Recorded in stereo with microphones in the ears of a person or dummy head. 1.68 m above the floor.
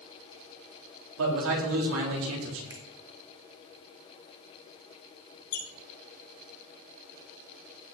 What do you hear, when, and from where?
1.2 s a man speaking: 80° right, 3.5 m
2.7 s a finger snap: 15° right (ahead or behind), 2.5 m
5.5 s a squeak: 75° left (ahead or behind), 6 m